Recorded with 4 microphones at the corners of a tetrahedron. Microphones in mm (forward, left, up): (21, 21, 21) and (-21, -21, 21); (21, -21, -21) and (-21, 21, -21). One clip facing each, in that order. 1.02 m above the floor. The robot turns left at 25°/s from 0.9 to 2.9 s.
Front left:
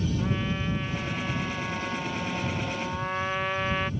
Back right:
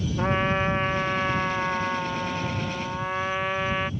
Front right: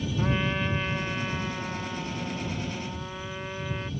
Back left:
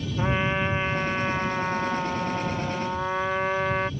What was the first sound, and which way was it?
A trumpet, 165° right.